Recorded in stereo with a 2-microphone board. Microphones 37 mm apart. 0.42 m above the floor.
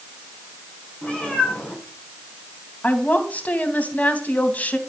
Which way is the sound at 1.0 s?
30° left (ahead or behind).